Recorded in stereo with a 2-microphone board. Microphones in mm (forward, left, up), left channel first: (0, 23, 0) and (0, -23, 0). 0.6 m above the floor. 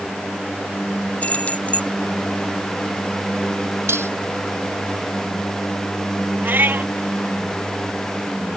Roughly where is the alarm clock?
I don't hear an alarm clock.